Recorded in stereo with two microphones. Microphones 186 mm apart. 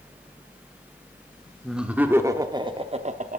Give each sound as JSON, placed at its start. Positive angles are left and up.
{"t": 1.6, "sound": "laughter", "side_deg": 0, "distance_m": 1.1}